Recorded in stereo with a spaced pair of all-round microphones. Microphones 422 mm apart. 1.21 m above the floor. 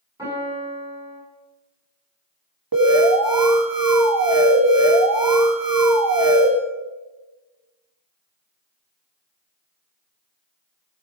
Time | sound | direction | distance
0.2 | a piano | 10° right (ahead or behind) | 7 m
2.7 | an alarm | 50° right (ahead or behind) | 1.6 m